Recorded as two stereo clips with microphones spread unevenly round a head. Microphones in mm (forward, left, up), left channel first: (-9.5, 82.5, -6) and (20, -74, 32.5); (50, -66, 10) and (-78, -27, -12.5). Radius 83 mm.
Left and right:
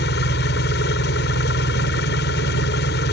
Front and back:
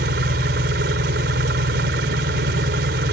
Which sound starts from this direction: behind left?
An engine running, at 0.0 s.